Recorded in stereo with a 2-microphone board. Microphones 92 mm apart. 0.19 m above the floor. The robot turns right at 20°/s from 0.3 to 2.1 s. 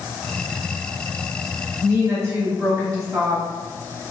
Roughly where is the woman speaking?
Right.